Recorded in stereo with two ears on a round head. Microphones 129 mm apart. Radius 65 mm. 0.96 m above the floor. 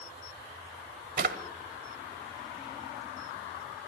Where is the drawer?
65° right (ahead or behind), 1.8 m.